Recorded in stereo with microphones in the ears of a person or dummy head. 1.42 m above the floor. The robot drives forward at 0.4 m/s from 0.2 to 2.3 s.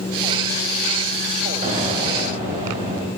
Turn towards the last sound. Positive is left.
turn(degrees=-40)  # may be behind; listen again after turning